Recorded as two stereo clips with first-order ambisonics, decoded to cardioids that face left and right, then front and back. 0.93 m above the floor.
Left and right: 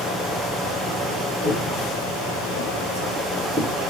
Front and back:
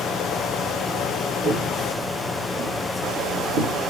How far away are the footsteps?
About 1.9 m.